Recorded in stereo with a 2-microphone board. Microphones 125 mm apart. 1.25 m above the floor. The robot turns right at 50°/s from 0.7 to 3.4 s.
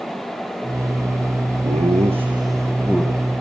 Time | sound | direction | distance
1.6 | laughter | 70° right (ahead or behind) | 1.6 m